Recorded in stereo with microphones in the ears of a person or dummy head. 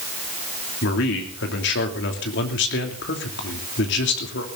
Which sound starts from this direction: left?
A man speaking, at 0.8 s.